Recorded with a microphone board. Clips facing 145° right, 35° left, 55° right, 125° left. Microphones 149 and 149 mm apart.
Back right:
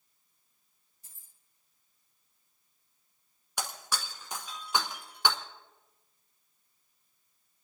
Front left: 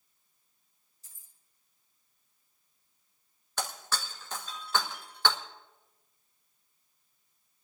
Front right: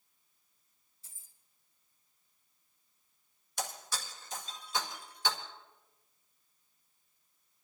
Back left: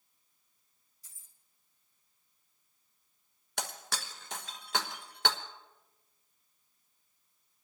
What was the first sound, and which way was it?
Keys jangling, 120° right.